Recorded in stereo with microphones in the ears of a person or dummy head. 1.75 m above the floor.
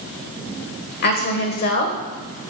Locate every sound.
1.0 s a woman speaking: 45° left (ahead or behind), 1.2 m